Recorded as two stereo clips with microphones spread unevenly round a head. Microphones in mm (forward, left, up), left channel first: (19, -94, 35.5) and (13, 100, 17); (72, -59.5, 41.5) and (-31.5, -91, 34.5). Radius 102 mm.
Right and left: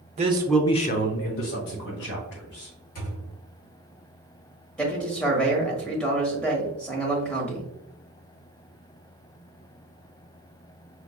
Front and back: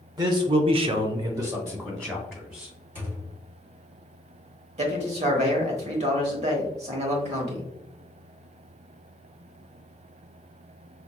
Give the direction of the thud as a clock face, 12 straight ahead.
3 o'clock.